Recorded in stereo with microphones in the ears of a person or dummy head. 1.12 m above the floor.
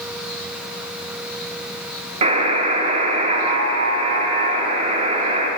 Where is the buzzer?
40° right (ahead or behind), 1.7 m.